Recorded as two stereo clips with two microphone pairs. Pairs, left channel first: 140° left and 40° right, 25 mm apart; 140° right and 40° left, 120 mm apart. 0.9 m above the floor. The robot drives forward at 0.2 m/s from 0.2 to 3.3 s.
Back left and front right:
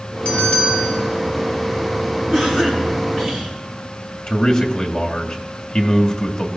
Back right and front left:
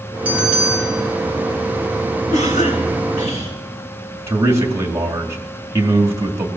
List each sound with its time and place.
0.2 s a bell: 115° left, 3.5 m; by 1.0 s 120° left, 3.5 m
2.3 s a cough: 145° right, 9 m; by 3.5 s 150° right, 9 m
4.3 s a man speaking: 105° left, 2 m